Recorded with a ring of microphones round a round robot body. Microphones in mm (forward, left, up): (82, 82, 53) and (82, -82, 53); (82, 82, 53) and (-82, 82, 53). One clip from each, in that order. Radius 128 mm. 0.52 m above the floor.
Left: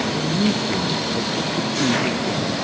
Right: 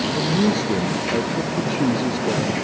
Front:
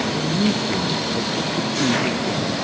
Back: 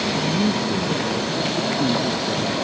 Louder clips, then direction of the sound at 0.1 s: Right 1 dB, even; 85° right.